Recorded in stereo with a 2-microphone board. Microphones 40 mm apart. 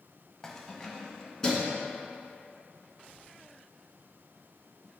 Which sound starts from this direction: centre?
Keys jangling, at 0.4 s.